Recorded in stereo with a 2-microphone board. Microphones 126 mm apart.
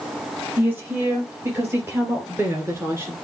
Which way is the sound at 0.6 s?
15° right (ahead or behind).